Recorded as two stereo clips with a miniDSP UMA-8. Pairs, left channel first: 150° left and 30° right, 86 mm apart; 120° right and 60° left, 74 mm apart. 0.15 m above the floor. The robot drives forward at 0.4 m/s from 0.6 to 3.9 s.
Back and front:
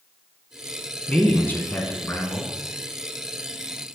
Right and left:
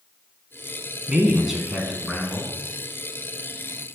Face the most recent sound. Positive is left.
turn(degrees=165)